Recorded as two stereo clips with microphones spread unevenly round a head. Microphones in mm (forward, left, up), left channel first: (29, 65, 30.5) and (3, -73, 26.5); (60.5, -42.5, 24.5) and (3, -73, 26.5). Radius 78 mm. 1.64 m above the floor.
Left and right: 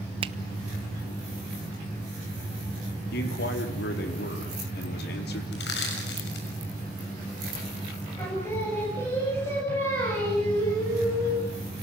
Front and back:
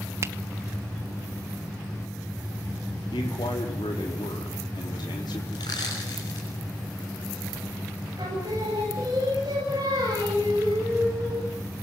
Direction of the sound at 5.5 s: 80° left.